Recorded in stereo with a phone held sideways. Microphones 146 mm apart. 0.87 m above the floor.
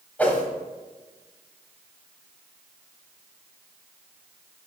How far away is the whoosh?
About 0.9 m.